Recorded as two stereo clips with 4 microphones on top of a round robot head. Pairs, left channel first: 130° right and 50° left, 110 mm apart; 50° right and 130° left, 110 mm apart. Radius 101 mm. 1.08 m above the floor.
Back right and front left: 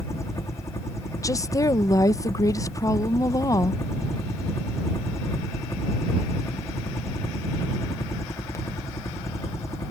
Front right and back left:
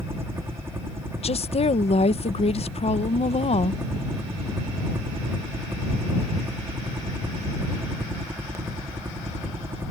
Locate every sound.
0.0 s a helicopter: 175° right
1.2 s a woman speaking: 70° right